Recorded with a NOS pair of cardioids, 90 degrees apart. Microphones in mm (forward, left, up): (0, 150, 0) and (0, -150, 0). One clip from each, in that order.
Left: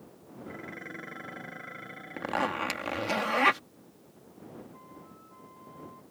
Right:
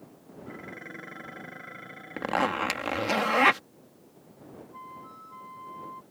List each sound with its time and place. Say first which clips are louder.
0.5 s dishes clattering: even; straight ahead
2.2 s a zipper: right 3 dB; 25° right
4.7 s a flute: right 7 dB; 65° right